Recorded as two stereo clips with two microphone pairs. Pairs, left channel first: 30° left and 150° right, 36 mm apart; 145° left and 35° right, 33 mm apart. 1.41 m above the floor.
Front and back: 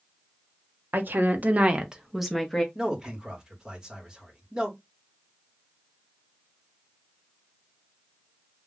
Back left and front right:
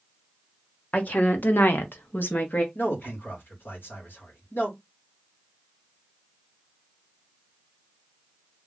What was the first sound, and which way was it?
A woman speaking, 175° right.